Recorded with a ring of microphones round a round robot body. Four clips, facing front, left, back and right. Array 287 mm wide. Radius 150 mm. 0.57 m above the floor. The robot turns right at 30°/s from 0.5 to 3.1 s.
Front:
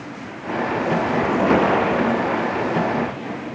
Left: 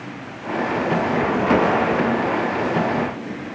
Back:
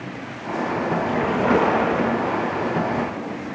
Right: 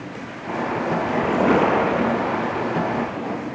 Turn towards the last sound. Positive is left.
turn(degrees=-20)